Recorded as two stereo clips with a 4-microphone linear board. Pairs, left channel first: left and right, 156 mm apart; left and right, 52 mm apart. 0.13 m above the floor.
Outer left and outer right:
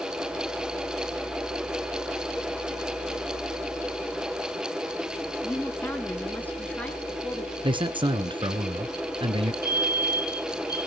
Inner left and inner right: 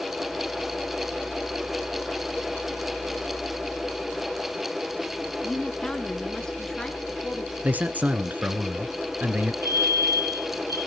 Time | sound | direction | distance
5.4 | a woman speaking | 15° left (ahead or behind) | 1.7 m
7.6 | a man speaking | 30° right (ahead or behind) | 1.3 m
9.6 | a fire alarm | 75° right (ahead or behind) | 8 m